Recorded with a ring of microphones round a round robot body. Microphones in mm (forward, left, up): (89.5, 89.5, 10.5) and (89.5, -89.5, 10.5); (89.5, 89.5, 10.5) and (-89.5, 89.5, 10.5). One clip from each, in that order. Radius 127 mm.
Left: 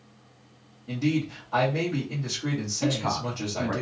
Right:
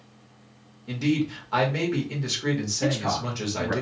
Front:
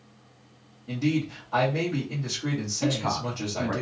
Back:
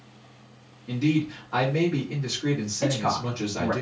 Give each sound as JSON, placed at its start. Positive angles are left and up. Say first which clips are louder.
{"t": 0.9, "sound": "a man speaking", "louder": "right 2 dB, back 2 dB", "azimuth_deg": -120, "distance_m": 1.4}
{"t": 2.8, "sound": "a man speaking", "louder": "even, back 2 dB", "azimuth_deg": 135, "distance_m": 1.2}